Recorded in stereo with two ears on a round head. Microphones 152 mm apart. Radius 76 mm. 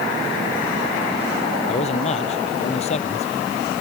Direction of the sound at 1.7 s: 40° left (ahead or behind).